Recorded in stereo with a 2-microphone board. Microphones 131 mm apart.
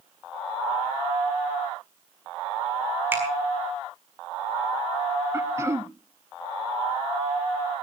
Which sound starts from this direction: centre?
A finger snap, at 3.1 s.